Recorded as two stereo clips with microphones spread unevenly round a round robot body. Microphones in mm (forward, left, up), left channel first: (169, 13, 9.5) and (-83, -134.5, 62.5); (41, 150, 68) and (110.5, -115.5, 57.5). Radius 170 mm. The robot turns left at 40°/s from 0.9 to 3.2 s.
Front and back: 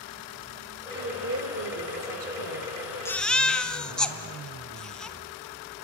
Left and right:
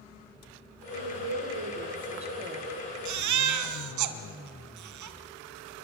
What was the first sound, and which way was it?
A woman speaking, 90° right.